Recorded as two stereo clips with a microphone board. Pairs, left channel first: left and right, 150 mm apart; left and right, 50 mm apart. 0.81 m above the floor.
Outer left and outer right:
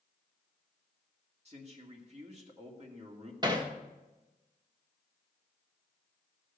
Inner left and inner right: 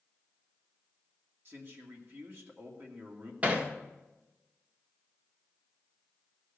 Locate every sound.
1.4 s a man speaking: 45° right (ahead or behind), 2 m
3.4 s hammering: 30° right (ahead or behind), 1.2 m